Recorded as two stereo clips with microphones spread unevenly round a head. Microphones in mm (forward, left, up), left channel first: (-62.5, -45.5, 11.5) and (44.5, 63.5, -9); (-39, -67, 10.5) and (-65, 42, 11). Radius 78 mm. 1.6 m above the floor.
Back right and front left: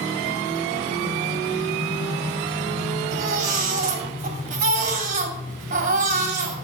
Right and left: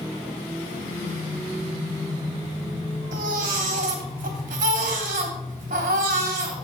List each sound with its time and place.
3.1 s a baby crying: 80° left, 3 m